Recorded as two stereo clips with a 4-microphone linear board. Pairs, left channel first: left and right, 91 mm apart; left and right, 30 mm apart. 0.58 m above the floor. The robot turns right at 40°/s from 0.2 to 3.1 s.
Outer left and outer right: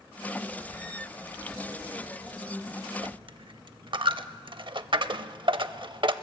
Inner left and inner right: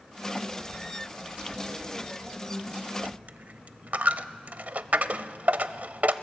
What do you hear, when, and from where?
3.0 s a dropped coin: 60° right (ahead or behind), 0.5 m